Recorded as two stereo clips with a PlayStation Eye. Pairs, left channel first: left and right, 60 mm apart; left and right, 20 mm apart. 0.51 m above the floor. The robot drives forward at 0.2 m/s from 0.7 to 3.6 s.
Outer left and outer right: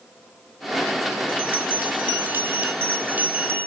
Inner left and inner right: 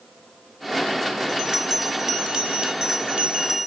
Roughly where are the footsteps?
I don't hear footsteps.